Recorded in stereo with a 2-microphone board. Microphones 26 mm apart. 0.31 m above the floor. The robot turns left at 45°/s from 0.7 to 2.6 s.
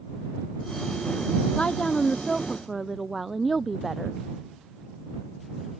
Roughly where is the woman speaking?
Ahead left.